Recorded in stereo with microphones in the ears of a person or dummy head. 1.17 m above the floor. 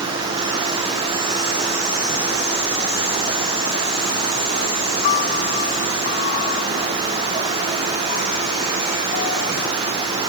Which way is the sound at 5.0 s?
45° left (ahead or behind).